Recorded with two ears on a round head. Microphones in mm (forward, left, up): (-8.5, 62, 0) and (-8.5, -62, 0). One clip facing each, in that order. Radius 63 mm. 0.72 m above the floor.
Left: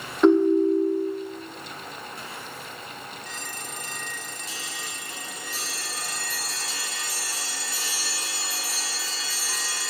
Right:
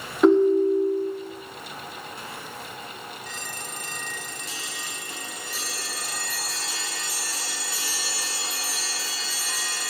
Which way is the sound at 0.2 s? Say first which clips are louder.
Even; 5° right (ahead or behind).